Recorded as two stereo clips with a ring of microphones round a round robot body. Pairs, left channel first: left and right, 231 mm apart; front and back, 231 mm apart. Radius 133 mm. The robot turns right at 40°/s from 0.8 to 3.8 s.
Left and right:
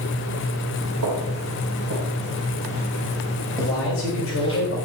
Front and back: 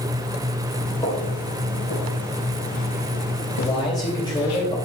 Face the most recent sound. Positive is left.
turn(degrees=70)